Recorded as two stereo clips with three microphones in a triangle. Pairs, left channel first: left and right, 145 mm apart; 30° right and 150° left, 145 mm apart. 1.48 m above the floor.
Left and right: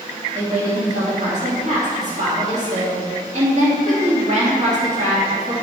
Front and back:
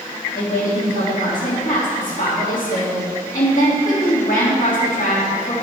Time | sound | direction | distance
0.3 | a woman speaking | 55° right | 2.5 m